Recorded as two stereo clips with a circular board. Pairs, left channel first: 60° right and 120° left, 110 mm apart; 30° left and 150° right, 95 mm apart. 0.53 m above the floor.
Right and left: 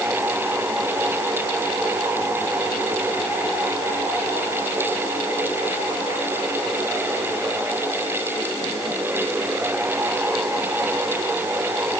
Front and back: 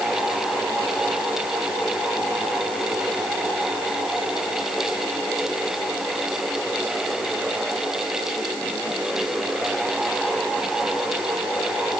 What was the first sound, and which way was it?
Only background noise.